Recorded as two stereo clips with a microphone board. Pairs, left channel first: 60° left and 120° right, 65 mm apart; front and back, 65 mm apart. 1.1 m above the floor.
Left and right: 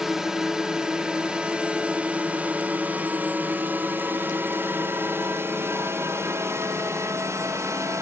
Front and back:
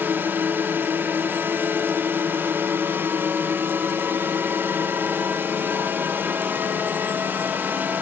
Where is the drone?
160° left; by 8.0 s 130° right.